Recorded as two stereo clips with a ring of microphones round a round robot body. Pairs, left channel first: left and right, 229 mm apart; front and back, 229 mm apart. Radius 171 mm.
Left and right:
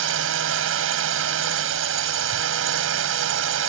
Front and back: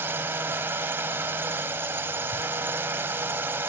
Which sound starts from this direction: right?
A drone, at 0.0 s.